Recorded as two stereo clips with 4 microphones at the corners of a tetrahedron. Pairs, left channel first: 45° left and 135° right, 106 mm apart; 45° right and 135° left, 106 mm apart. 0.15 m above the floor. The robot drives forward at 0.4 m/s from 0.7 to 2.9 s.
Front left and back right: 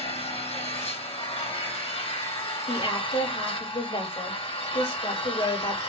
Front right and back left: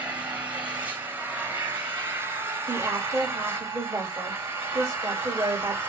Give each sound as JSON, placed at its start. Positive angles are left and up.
{"t": 0.0, "sound": "an engine running", "azimuth_deg": 60, "distance_m": 5.0}
{"t": 2.7, "sound": "a woman speaking", "azimuth_deg": 70, "distance_m": 5.0}